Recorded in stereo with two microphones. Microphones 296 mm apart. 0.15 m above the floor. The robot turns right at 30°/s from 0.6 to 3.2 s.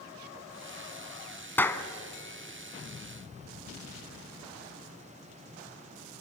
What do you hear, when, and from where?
1.6 s a clap: 5° left (ahead or behind), 1.0 m; by 1.9 s 10° left (ahead or behind), 1.0 m